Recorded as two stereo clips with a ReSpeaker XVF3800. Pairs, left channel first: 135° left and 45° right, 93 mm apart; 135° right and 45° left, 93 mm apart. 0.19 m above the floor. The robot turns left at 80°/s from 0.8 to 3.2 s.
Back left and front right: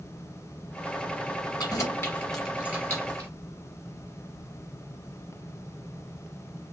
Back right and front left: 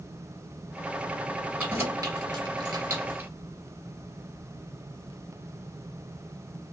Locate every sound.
1.6 s keys jangling: 115° left, 1.3 m; by 3.3 s 15° right, 1.3 m